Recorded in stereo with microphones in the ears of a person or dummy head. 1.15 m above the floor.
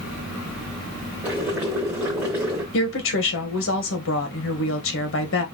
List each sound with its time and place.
1.2 s boiling: 10° right (ahead or behind), 1.0 m
2.7 s a woman speaking: 60° left (ahead or behind), 1.1 m